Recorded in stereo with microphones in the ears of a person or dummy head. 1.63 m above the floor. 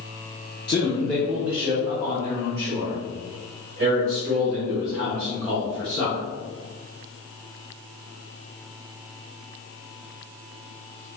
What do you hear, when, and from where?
0.7 s a man speaking: 30° left (ahead or behind), 0.5 m; by 6.2 s 50° right (ahead or behind), 3 m